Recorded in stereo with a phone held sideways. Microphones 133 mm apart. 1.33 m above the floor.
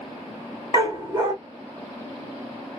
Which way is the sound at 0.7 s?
25° right (ahead or behind).